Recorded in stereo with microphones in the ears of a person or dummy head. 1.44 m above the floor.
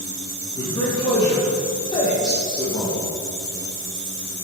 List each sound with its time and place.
0.6 s a man speaking: 25° left (ahead or behind), 1.5 m